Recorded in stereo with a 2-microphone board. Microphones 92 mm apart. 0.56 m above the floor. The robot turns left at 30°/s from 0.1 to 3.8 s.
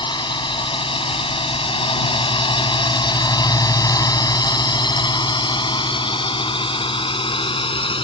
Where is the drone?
55° left (ahead or behind); by 8.0 s 75° left (ahead or behind).